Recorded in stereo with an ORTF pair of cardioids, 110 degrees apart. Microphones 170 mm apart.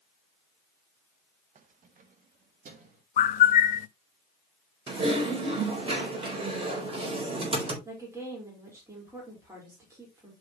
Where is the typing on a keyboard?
35° right, 4.5 m.